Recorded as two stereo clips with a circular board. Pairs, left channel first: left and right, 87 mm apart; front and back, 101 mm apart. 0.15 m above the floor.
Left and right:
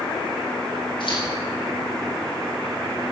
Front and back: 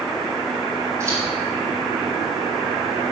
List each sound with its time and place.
1.0 s scissors: 115° left, 6.5 m